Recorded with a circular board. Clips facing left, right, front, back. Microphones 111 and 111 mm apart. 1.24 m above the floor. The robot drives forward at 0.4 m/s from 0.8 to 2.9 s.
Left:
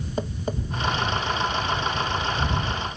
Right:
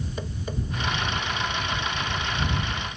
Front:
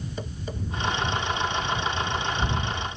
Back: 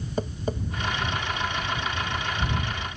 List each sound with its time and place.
0.2 s tapping: 140° left, 0.8 m